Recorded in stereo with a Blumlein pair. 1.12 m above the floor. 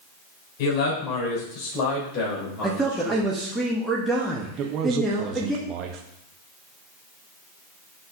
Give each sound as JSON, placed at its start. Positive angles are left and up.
{"t": 0.6, "sound": "a man speaking", "azimuth_deg": 40, "distance_m": 3.5}
{"t": 2.6, "sound": "a man speaking", "azimuth_deg": -5, "distance_m": 1.2}
{"t": 4.6, "sound": "a man speaking", "azimuth_deg": -35, "distance_m": 0.7}